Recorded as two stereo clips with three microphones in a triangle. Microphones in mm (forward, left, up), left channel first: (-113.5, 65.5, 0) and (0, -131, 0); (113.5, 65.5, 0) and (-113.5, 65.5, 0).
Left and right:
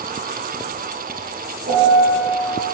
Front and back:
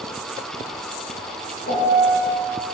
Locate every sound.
1.7 s a piano: 20° right, 7 m